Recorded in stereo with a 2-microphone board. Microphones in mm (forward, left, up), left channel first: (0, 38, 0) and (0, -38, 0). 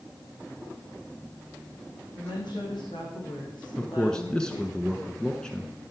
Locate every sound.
2.1 s a woman speaking: 75° left (ahead or behind), 6.5 m
3.8 s a man speaking: 10° left (ahead or behind), 1.1 m